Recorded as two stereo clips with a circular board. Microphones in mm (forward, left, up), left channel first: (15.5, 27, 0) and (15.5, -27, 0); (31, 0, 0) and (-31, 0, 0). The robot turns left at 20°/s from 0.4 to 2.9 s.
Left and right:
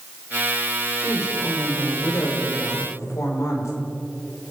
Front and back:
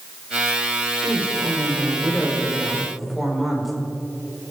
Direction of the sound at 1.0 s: 130° left.